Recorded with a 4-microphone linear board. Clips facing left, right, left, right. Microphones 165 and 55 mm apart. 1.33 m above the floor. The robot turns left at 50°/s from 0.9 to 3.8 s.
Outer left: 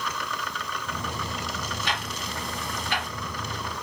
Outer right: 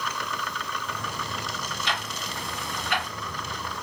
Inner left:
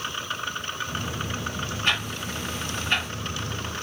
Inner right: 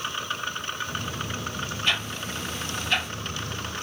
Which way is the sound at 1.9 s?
55° left (ahead or behind).